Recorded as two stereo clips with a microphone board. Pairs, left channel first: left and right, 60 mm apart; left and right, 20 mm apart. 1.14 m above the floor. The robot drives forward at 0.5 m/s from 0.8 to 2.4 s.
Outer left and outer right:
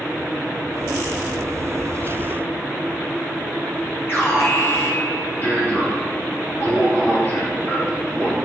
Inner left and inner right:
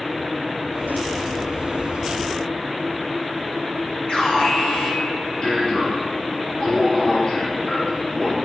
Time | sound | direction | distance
4.1 | an alarm | 40° left (ahead or behind) | 5 m